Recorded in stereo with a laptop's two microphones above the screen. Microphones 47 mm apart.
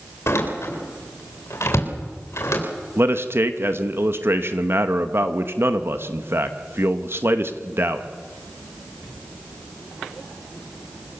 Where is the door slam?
70° left (ahead or behind), 3.5 m.